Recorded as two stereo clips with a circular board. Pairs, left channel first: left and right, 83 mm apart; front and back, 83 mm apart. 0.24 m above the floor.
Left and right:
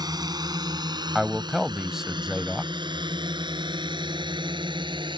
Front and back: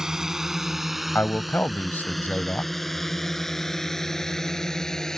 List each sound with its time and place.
0.0 s a drone: 100° right; by 5.2 s 85° right
1.1 s a man speaking: 15° right